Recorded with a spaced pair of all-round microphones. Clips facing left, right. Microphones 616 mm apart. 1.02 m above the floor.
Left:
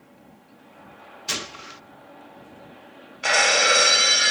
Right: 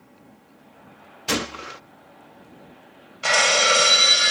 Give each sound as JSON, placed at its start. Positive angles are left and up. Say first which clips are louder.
{"t": 1.3, "sound": "a gunshot", "louder": "right 11 dB", "side_deg": -75}
{"t": 3.2, "sound": "breaking glass", "louder": "right 1 dB", "side_deg": -30}